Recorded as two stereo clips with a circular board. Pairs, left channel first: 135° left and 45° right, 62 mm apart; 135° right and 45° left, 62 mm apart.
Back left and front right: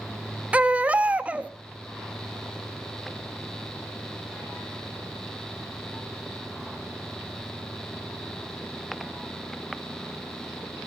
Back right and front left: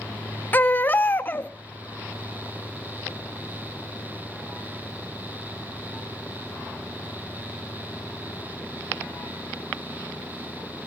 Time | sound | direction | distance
0.5 | a baby crying | 100° right | 0.5 m